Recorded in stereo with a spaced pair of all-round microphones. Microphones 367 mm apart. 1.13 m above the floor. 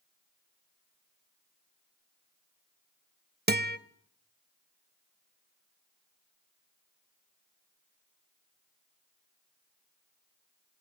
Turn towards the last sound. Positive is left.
turn(degrees=-30)  # may be behind; listen again after turning